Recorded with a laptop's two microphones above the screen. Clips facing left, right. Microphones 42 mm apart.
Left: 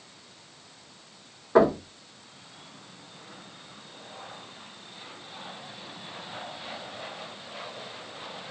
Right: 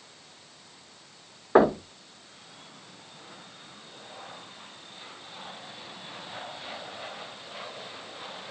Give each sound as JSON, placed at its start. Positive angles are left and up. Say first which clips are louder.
{"t": 1.6, "sound": "knocking", "louder": "even", "side_deg": -30, "distance_m": 1.2}